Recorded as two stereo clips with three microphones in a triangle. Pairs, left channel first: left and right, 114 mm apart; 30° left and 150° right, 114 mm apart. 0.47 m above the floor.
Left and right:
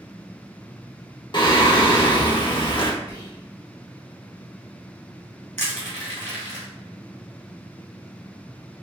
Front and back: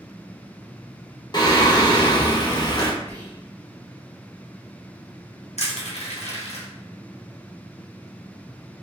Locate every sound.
1.3 s singing: 65° left, 0.5 m
3.1 s whispering: 95° left, 1.2 m
5.6 s crushing: 20° left, 1.3 m